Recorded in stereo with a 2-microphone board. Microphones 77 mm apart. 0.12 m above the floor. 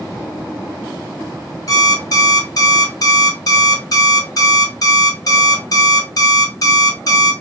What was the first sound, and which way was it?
An alarm clock, 45° left (ahead or behind).